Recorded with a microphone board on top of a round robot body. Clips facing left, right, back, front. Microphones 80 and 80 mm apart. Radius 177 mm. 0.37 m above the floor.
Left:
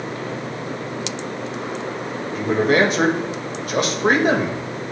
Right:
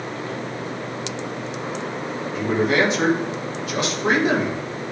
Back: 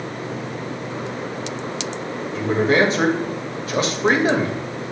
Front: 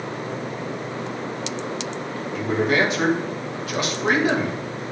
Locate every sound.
2.4 s a man speaking: 125° left, 2 m